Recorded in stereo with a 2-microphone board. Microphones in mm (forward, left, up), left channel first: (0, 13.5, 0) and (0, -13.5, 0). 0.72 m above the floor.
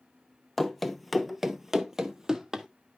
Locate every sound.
0.6 s running footsteps: 10° left (ahead or behind), 0.9 m; by 2.7 s 20° right (ahead or behind), 1.2 m